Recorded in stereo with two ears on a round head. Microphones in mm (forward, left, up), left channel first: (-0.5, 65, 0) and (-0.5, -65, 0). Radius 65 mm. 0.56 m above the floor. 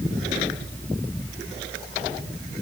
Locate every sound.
Only background noise.